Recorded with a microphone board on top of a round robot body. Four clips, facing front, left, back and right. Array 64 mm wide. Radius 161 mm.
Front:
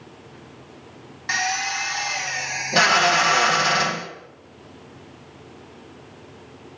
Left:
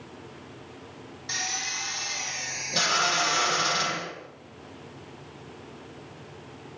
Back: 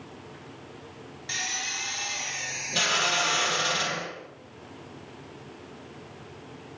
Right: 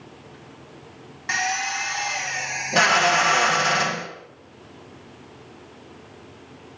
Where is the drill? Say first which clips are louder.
Right 10 dB, front 11 dB; 45° right, 3 m.